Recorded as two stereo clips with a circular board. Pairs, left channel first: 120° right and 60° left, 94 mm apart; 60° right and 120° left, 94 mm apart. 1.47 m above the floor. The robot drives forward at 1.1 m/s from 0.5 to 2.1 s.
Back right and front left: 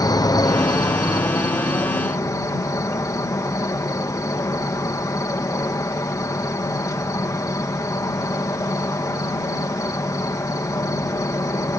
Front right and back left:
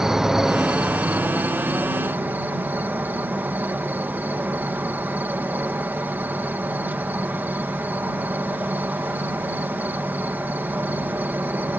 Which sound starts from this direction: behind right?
An insect, at 0.0 s.